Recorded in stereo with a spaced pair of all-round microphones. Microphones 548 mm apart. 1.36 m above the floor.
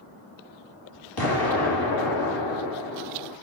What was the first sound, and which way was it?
An explosion, 40° left (ahead or behind).